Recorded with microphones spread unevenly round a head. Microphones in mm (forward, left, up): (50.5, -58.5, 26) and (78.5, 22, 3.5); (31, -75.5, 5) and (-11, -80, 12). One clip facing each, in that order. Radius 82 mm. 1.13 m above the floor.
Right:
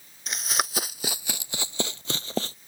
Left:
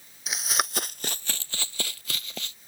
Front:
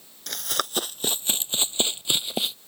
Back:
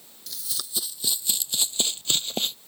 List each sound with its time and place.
0.3 s running footsteps: 25° right; by 2.5 s 90° right